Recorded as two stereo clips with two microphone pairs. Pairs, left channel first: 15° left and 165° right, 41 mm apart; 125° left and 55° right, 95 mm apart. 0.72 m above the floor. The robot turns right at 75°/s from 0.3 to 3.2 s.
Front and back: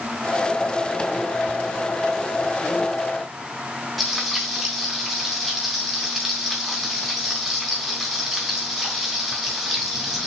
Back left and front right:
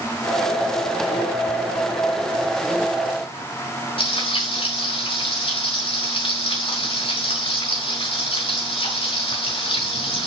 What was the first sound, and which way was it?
Frying, 100° left.